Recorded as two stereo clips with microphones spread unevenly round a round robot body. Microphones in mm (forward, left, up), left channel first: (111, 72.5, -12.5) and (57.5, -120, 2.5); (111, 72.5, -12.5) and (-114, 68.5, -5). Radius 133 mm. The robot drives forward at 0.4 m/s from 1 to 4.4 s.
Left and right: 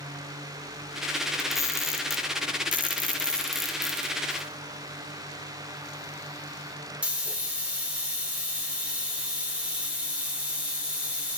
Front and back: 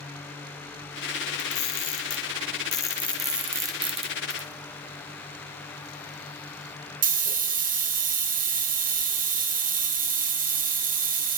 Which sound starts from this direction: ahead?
A camera shutter, at 1.4 s.